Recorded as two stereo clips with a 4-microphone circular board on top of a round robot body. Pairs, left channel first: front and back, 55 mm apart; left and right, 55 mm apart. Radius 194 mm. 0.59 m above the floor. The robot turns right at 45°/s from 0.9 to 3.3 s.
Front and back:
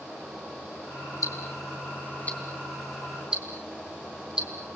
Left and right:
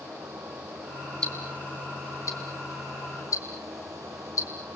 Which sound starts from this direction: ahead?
Ticking, at 1.2 s.